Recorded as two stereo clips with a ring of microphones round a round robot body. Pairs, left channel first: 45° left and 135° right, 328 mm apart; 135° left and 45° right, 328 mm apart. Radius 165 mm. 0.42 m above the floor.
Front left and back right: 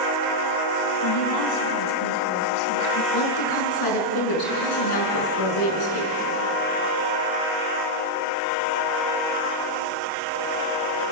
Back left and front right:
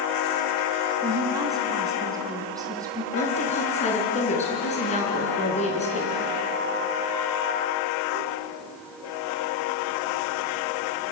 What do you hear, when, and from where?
1.0 s a woman speaking: 35° left, 3.5 m
3.1 s a woman speaking: 65° left, 5 m